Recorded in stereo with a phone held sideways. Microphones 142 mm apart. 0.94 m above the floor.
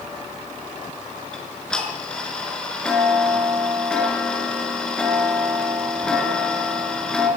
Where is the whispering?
I don't hear whispering.